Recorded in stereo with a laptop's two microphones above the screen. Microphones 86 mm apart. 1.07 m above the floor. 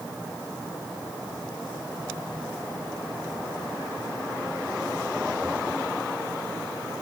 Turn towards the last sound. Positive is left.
No sound to turn to.